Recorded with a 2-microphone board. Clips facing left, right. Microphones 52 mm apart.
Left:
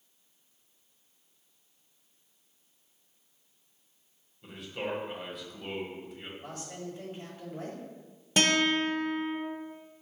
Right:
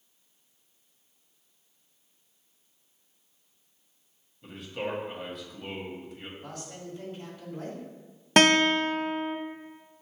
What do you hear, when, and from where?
4.4 s a man speaking: centre (ahead or behind), 1.0 m
6.4 s a man speaking: 30° left (ahead or behind), 1.3 m
8.4 s a guitar: 60° right (ahead or behind), 0.5 m